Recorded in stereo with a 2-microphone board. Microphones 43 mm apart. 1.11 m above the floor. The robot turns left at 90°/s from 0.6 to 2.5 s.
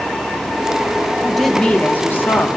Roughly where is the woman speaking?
Behind.